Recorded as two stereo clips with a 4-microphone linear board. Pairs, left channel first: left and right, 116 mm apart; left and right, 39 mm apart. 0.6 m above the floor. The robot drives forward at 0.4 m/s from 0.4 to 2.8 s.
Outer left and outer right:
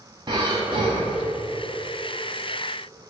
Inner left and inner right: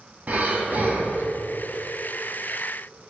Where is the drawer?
I don't hear a drawer.